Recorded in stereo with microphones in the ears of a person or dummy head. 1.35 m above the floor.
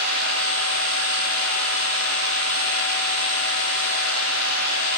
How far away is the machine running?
About 4 m.